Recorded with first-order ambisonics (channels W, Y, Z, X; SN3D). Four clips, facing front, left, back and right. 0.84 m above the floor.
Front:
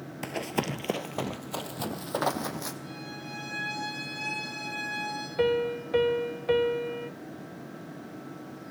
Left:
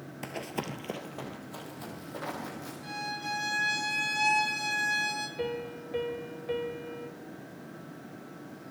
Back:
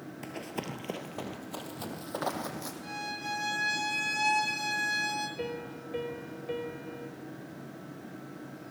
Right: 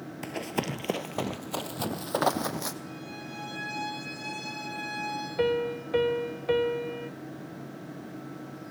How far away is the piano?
About 0.9 m.